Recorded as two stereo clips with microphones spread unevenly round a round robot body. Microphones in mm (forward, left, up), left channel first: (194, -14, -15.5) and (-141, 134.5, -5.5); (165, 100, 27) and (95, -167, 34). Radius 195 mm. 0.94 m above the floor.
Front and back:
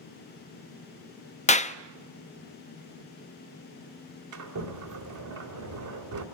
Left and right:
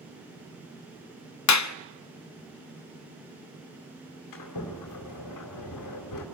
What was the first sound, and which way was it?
A clap, 50° left.